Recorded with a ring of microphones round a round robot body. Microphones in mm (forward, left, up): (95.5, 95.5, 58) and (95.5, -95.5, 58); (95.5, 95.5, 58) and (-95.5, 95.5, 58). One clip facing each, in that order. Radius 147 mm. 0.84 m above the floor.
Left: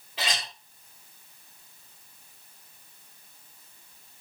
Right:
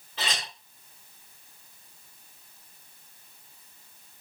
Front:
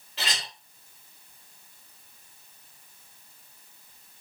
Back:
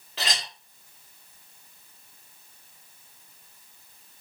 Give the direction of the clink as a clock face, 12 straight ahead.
6 o'clock.